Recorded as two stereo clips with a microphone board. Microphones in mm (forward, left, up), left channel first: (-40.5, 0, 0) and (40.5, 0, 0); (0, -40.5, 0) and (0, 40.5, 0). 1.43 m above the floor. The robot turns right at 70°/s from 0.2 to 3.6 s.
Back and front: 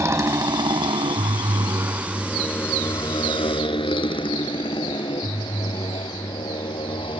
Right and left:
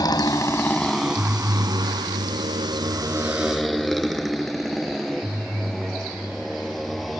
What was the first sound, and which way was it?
A motorcycle, 55° right.